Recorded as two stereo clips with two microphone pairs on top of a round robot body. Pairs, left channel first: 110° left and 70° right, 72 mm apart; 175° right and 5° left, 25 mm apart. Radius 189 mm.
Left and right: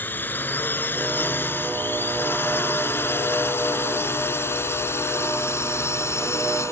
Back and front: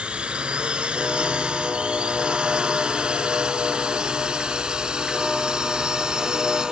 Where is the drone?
50° left; by 6.7 s 60° left.